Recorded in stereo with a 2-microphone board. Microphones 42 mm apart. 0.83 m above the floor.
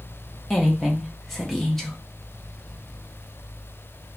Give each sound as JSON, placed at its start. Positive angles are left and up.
{"t": 0.5, "sound": "a woman speaking", "side_deg": 10, "distance_m": 0.6}